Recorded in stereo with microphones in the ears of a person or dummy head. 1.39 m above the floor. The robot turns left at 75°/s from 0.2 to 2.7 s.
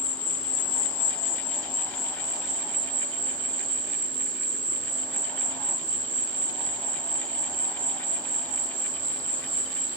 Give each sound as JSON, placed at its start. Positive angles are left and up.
{"t": 0.0, "sound": "an insect", "azimuth_deg": 140, "distance_m": 1.0}